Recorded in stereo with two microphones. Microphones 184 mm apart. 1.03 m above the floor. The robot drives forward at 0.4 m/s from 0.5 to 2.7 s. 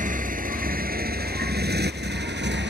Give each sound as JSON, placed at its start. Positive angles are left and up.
{"t": 0.0, "sound": "a motorcycle", "side_deg": -45}